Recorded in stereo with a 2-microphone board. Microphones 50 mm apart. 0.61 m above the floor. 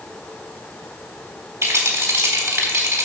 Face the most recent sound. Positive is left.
turn(degrees=-80)